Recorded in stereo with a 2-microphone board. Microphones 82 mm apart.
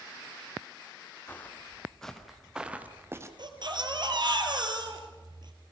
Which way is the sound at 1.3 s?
20° left (ahead or behind).